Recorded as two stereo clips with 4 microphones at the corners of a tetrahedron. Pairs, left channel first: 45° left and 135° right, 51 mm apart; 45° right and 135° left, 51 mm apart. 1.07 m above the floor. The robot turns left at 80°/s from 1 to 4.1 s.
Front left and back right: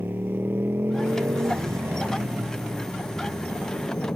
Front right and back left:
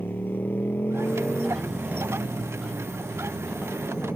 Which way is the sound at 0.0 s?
95° right.